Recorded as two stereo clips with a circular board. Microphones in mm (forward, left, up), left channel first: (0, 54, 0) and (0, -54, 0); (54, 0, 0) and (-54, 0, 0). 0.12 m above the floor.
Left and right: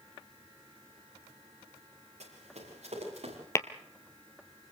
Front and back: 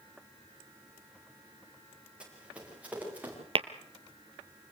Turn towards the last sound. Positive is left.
turn(degrees=150)